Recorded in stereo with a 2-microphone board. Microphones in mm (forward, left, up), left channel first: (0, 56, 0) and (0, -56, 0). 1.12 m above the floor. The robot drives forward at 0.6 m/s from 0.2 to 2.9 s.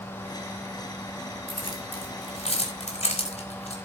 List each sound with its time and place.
1.5 s keys jangling: 55° left (ahead or behind), 4 m; by 3.8 s 65° left (ahead or behind), 3.5 m